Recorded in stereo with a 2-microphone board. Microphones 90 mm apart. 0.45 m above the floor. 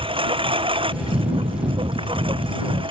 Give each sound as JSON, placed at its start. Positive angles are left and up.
{"t": 0.0, "sound": "a lawn mower", "side_deg": -90}